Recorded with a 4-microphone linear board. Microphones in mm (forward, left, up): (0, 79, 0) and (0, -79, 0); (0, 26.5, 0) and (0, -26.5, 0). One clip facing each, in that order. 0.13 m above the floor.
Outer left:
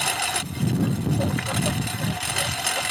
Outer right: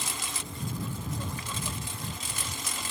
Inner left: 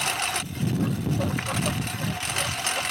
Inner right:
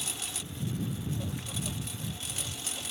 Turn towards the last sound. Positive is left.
turn(degrees=70)  # may be behind; listen again after turning